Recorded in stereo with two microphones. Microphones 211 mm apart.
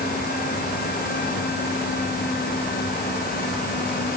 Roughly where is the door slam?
I don't hear a door slam.